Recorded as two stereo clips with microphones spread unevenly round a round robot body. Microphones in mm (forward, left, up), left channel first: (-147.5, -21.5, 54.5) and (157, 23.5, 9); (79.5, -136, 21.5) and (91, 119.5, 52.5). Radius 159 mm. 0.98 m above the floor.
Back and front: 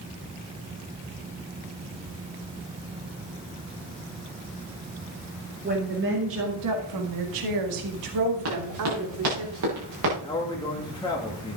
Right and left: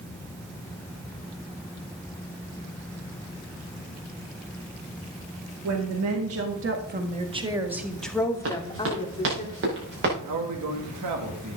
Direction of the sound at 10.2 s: 110° left.